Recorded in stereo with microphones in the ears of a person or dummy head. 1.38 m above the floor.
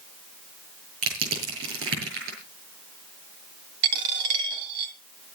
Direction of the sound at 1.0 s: 70° right (ahead or behind).